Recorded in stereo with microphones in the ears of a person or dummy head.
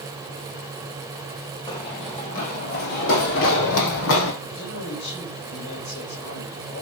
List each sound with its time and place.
1.7 s running footsteps: 20° left (ahead or behind), 3 m; by 4.3 s 70° left (ahead or behind), 4 m
4.4 s a man speaking: 55° left (ahead or behind), 5 m